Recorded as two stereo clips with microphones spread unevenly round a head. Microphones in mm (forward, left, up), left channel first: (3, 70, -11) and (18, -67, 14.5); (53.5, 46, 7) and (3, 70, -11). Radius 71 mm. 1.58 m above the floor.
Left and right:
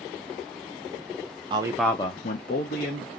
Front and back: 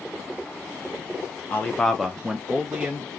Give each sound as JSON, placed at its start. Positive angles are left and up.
{"t": 1.5, "sound": "a man speaking", "azimuth_deg": -60, "distance_m": 0.6}